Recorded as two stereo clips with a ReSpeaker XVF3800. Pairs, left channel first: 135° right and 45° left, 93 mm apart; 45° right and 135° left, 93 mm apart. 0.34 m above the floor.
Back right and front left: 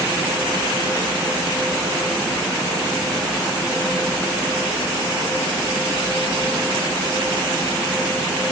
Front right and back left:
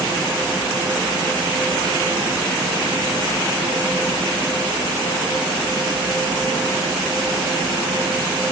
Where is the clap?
No clap in this recording.